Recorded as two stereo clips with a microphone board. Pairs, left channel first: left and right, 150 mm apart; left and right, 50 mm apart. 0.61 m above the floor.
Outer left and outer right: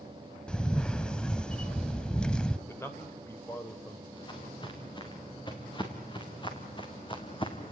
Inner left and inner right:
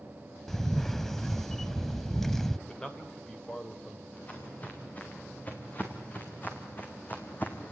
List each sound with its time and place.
0.5 s a camera shutter: 5° left (ahead or behind), 0.6 m
2.7 s a man speaking: 15° left (ahead or behind), 2.5 m
4.1 s footsteps: 30° left (ahead or behind), 5 m; by 7.7 s 35° left (ahead or behind), 2.5 m